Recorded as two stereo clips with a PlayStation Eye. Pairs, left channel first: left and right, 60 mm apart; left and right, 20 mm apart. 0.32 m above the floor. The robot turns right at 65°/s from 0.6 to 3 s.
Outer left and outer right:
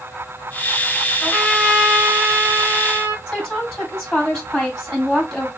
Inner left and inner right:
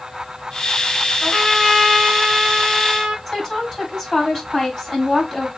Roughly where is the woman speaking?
Centre.